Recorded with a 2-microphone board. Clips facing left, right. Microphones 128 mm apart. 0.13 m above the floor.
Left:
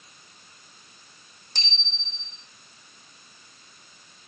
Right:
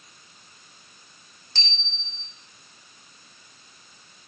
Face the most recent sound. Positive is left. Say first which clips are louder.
# right 1 dB
turn(degrees=15)  # may be behind; listen again after turning